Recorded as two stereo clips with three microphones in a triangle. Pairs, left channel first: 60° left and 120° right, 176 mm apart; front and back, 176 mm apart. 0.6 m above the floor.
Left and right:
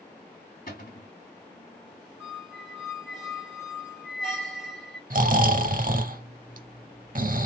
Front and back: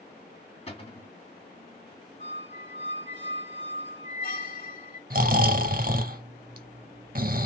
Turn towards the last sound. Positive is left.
turn(degrees=-150)